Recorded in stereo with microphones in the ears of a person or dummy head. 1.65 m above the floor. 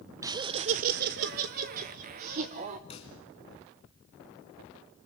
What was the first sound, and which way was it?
Laughter, 15° right (ahead or behind).